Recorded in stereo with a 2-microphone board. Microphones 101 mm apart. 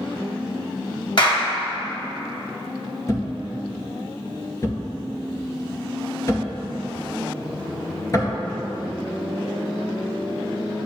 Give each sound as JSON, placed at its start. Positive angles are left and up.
{"t": 1.2, "sound": "a clap", "side_deg": 55, "distance_m": 2.5}
{"t": 3.1, "sound": "a thud", "side_deg": 30, "distance_m": 2.0}